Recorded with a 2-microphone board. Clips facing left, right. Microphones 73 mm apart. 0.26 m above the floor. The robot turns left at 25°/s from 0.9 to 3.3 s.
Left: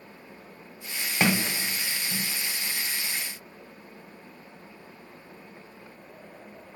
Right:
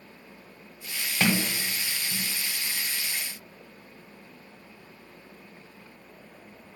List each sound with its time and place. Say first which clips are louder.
1.2 s a sliding door: left 1 dB; 20° left (ahead or behind), 0.7 m; by 2.3 s 35° left (ahead or behind), 0.7 m